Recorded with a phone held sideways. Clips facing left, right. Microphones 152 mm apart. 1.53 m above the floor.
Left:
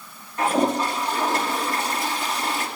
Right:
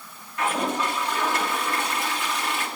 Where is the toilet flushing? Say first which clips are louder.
Left 5 dB; 35° left (ahead or behind), 2.5 m.